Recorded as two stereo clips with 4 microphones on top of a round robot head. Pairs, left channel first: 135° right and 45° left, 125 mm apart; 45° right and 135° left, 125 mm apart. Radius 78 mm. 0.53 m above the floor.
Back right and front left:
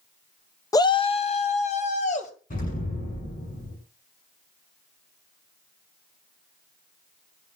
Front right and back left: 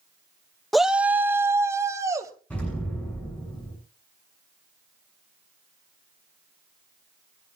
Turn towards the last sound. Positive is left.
turn(degrees=-125)